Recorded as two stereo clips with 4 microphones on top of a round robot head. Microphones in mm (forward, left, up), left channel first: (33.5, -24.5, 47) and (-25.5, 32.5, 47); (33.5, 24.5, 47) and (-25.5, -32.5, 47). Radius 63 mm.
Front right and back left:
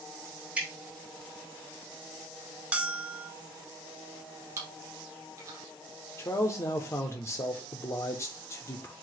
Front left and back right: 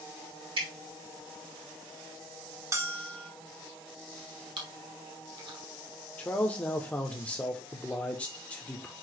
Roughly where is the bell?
Behind.